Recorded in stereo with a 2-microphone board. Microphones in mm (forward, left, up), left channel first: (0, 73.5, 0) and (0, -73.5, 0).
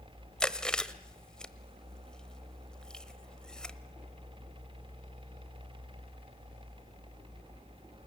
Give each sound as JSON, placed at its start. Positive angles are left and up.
{"t": 0.4, "sound": "chewing", "side_deg": 5, "distance_m": 1.1}